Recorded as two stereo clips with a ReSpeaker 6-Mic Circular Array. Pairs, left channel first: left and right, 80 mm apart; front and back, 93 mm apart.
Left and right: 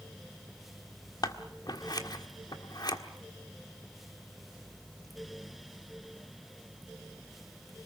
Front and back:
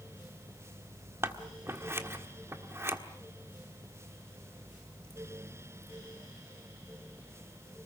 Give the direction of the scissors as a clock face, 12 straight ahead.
8 o'clock.